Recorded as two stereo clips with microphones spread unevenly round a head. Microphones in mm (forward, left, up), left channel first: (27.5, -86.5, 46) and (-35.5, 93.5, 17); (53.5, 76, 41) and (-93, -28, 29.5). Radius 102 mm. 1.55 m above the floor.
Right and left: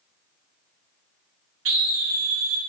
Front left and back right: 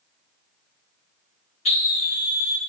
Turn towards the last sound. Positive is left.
turn(degrees=90)